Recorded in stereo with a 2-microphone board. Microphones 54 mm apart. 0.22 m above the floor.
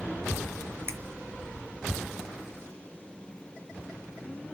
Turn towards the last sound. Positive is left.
turn(degrees=-40)  # may be behind; listen again after turning